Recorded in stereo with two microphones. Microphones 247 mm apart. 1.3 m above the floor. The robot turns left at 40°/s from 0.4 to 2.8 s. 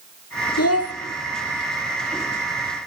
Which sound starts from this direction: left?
A child speaking, at 0.6 s.